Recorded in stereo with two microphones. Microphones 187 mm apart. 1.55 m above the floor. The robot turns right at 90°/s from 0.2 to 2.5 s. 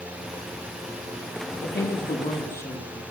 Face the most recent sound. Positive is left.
turn(degrees=165)